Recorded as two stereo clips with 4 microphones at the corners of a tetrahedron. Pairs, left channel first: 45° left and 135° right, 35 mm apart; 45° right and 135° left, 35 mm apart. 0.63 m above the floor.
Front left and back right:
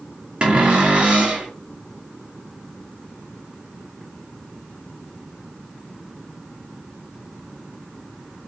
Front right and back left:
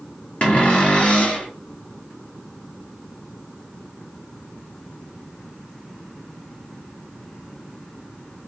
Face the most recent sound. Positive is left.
turn(degrees=-85)